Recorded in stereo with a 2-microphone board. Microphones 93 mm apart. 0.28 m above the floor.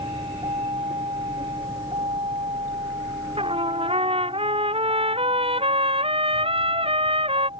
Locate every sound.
0.0 s a vehicle: 65° right (ahead or behind)
3.4 s a trumpet: 85° right